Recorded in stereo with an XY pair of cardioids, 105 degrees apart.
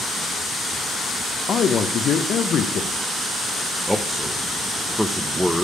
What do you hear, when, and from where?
1.5 s a man speaking: 60° left, 0.5 m
3.9 s a man speaking: 5° left, 0.6 m